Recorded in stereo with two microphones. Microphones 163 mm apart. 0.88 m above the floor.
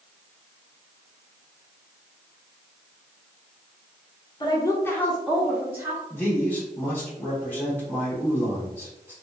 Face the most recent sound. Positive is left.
turn(degrees=15)  # may be behind; listen again after turning